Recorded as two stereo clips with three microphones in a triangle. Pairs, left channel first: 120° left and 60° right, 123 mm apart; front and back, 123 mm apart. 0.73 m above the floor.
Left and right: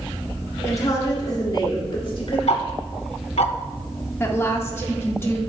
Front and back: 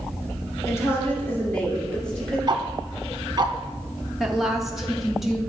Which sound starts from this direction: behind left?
Ticking, at 2.5 s.